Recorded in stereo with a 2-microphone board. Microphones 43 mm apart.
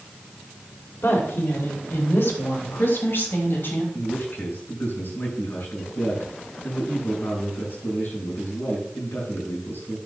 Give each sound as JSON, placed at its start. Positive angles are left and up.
{"t": 1.0, "sound": "a woman speaking", "side_deg": 65, "distance_m": 3.0}
{"t": 3.9, "sound": "a man speaking", "side_deg": 55, "distance_m": 6.5}